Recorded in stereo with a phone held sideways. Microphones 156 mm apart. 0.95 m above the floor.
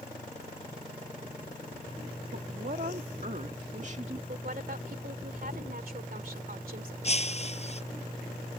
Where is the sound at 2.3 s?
70° right (ahead or behind); by 4.2 s 45° right (ahead or behind).